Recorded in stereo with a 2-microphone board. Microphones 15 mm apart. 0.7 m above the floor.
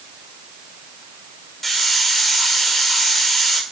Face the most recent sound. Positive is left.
turn(degrees=15)  # may be behind; listen again after turning